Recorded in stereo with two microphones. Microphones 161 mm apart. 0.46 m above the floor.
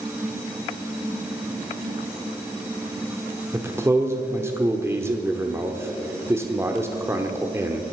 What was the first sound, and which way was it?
A man speaking, 15° right (ahead or behind).